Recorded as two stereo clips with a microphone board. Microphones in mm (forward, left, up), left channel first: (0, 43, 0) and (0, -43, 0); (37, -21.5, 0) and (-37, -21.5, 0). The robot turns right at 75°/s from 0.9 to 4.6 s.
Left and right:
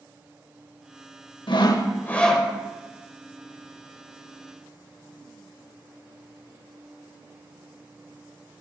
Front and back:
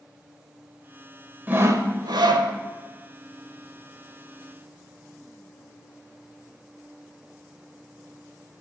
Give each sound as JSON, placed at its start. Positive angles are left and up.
{"t": 1.5, "sound": "sawing", "azimuth_deg": 115, "distance_m": 0.8}